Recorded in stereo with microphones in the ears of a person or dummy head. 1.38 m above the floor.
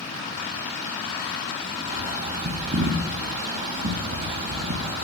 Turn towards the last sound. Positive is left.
turn(degrees=-40)  # may be behind; listen again after turning